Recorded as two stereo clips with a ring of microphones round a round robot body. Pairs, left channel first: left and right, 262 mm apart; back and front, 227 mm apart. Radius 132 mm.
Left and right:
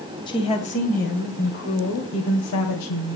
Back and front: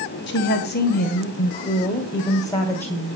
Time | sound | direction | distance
0.3 | a woman speaking | 160° left | 2 m